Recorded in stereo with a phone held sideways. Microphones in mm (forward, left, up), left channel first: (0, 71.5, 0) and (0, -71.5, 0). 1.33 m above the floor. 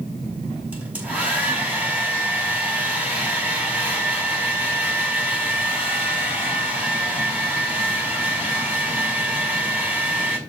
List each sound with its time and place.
0.7 s a hair dryer: 10° right (ahead or behind), 5 m